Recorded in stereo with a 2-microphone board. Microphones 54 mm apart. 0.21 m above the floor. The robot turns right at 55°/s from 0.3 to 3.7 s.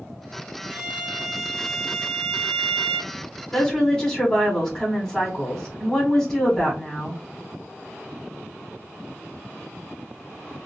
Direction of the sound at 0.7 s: 40° right.